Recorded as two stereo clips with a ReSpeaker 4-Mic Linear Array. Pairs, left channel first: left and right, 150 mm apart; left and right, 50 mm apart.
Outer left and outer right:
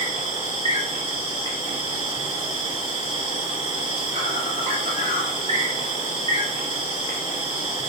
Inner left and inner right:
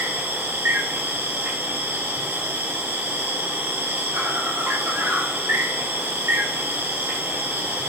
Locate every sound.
0.0 s an insect: 50° right (ahead or behind), 6 m